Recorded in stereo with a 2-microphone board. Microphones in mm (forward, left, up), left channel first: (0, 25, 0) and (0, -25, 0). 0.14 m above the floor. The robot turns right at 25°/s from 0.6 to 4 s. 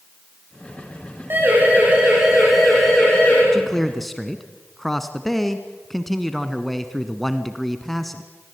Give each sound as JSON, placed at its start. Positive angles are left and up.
{"t": 1.3, "sound": "a siren", "side_deg": -40, "distance_m": 9.5}
{"t": 3.5, "sound": "a man speaking", "side_deg": 10, "distance_m": 1.1}